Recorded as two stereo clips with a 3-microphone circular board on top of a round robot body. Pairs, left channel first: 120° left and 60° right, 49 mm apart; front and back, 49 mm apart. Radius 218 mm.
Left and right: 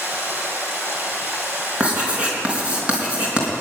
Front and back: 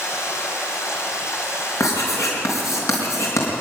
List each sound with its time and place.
0.0 s running water: 15° right, 3.5 m
1.8 s writing: 5° left, 4.5 m